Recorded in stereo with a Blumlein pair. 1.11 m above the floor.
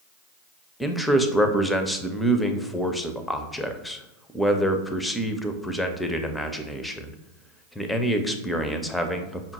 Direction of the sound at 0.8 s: 5° left.